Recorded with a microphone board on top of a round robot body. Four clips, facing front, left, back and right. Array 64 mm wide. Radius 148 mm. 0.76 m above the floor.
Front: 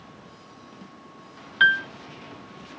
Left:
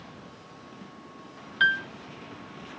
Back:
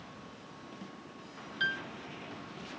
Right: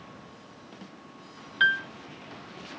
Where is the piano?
Straight ahead.